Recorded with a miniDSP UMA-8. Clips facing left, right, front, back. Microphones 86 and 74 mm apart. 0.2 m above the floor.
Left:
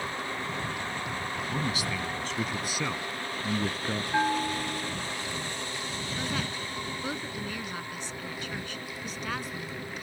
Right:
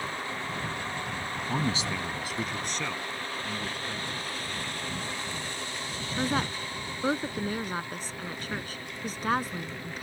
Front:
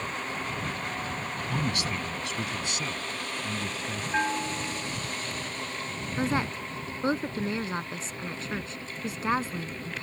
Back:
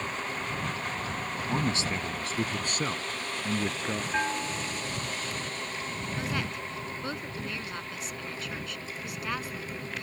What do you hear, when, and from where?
1.5 s a man speaking: 120° right; by 4.0 s 140° left
4.1 s a bell: 80° left
6.2 s a woman speaking: 50° right